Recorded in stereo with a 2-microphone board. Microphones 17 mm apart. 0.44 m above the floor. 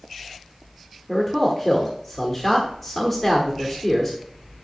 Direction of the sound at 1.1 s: 15° left (ahead or behind).